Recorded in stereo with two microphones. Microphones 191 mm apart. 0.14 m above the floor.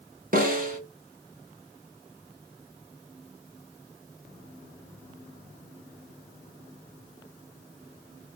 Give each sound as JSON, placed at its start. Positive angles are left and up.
{"t": 0.3, "sound": "a snare drum", "side_deg": -50, "distance_m": 0.7}